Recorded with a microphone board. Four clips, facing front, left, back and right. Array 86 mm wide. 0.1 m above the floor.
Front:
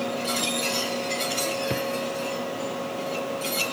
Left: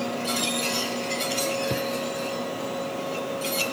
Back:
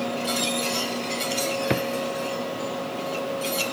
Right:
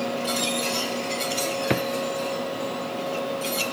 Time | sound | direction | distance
1.7 | a drawer | 125° right | ?